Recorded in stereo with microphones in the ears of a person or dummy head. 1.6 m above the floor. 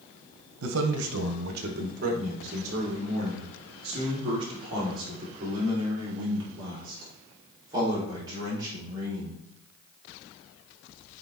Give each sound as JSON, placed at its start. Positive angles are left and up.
{"t": 0.6, "sound": "a man speaking", "side_deg": -80, "distance_m": 1.3}